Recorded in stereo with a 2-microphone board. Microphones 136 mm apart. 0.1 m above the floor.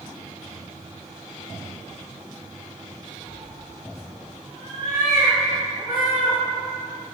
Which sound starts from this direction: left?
A cat meowing, at 3.3 s.